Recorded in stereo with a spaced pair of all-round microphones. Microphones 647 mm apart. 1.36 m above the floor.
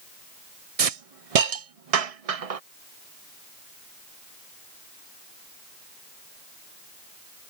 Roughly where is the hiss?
Right.